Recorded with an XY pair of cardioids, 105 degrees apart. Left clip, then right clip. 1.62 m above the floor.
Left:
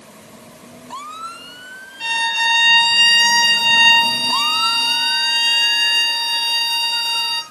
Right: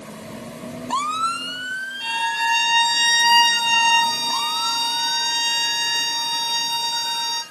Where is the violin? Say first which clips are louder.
Left 5 dB; 55° left, 8.5 m.